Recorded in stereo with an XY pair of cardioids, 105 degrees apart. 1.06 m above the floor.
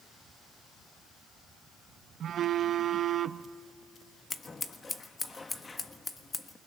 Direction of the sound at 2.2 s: 55° right.